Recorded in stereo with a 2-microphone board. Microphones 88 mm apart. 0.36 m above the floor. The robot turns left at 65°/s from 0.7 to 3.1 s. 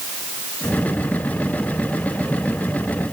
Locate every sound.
Only background noise.